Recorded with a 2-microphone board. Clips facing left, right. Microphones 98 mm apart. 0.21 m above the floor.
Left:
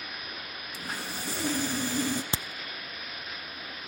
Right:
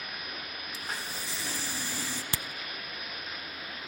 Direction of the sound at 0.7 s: 60° left (ahead or behind).